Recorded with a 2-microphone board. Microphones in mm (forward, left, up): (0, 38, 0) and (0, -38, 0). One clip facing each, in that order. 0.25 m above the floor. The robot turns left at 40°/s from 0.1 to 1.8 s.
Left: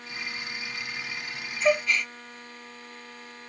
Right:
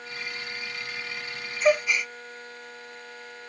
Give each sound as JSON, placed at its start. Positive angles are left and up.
{"t": 1.6, "sound": "a gasp", "side_deg": -10, "distance_m": 0.6}